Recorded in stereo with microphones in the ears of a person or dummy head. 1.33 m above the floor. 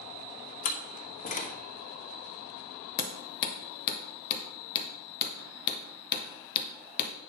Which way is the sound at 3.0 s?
50° left (ahead or behind).